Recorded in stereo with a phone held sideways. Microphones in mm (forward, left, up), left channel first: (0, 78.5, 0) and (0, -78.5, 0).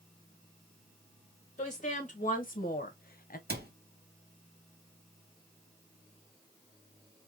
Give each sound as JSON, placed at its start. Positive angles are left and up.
{"t": 1.6, "sound": "a woman speaking", "side_deg": 50, "distance_m": 2.5}
{"t": 3.5, "sound": "a cupboard door", "side_deg": -80, "distance_m": 0.9}